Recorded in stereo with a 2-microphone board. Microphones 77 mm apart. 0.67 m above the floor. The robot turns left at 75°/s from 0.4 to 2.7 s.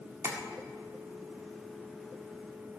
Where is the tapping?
35° right (ahead or behind), 1.8 m.